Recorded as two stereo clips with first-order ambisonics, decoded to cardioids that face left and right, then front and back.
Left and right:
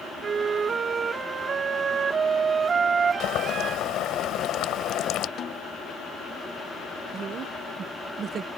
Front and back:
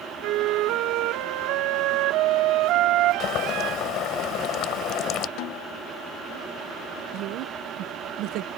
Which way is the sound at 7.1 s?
150° right.